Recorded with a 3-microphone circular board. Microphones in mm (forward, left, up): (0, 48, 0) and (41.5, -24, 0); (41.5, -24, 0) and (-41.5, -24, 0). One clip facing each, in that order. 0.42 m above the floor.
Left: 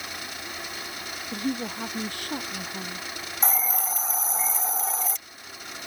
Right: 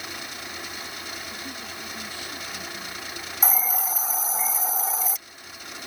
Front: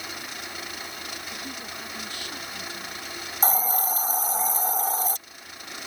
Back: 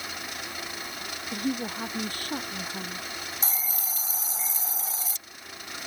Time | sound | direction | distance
1.3 | a woman speaking | 140° left | ?
3.4 | a hiss | 25° left | ?